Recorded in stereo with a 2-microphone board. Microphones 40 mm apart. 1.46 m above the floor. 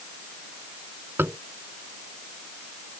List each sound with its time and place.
1.2 s tapping: 55° right (ahead or behind)